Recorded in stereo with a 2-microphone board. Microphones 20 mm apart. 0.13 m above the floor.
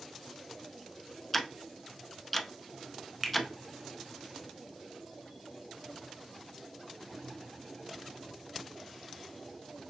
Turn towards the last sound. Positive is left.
turn(degrees=-10)  # may be behind; listen again after turning